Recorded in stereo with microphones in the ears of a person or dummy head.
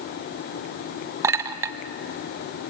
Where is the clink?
20° right (ahead or behind), 0.5 m.